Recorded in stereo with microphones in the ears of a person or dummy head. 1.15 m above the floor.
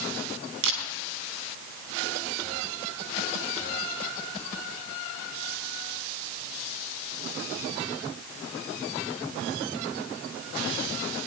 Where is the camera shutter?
80° right, 3.5 m.